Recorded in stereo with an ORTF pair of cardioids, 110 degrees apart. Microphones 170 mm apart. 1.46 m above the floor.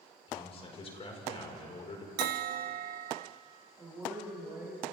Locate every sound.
0.3 s a man speaking: 35° left, 6 m
2.2 s a bell: 70° right, 0.9 m
3.8 s a woman speaking: 15° right, 8 m